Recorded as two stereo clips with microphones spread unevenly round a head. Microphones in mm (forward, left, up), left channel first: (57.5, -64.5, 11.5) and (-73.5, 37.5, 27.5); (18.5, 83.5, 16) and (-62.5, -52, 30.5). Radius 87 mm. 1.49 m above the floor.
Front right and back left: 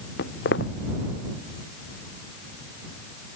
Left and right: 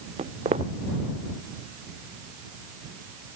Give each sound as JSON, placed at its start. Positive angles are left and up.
{"t": 0.2, "sound": "footsteps", "azimuth_deg": -60}